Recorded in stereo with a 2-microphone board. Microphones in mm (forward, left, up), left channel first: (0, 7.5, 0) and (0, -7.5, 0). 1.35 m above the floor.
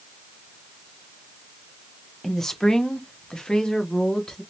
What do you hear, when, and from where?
2.2 s a woman speaking: 25° left (ahead or behind), 0.8 m; by 4.4 s 55° left (ahead or behind), 1.2 m